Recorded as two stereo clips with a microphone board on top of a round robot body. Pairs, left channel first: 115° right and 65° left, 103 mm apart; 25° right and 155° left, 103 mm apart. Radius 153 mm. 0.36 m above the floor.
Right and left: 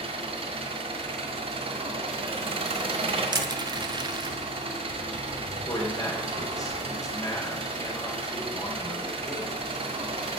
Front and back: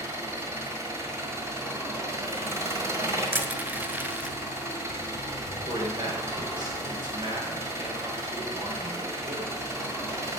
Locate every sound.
0.0 s an engine running: 95° left, 1.5 m
3.3 s crushing: 90° left, 0.8 m
5.7 s a man speaking: 165° right, 2.5 m